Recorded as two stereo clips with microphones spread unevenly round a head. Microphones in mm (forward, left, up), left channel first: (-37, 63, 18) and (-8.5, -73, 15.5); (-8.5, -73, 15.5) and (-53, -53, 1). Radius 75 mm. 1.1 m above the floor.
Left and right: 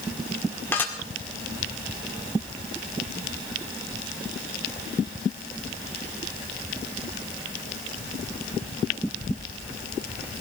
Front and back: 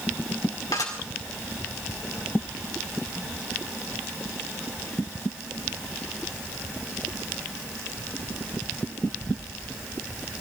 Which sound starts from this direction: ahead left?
Dishes clattering, at 0.7 s.